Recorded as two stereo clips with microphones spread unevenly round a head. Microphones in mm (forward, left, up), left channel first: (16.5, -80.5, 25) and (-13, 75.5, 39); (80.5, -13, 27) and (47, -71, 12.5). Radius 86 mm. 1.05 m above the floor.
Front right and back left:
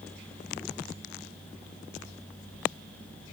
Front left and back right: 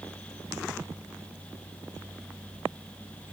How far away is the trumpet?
No trumpet in this recording.